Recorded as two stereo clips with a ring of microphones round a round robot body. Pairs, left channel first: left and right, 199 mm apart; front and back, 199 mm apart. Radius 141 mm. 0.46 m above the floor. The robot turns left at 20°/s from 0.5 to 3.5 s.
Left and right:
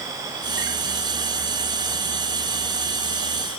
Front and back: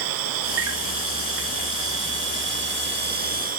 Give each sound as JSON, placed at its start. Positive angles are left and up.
{"t": 0.0, "sound": "an insect", "azimuth_deg": -170, "distance_m": 0.9}